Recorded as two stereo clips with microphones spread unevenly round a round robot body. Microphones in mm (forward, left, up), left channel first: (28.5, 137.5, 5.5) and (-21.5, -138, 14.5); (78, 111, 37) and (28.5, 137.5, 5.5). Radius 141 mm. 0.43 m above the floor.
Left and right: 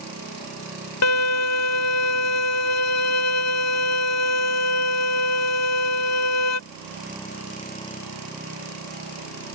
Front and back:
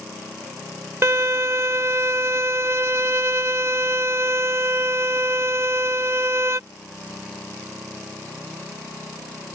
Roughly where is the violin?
Behind left.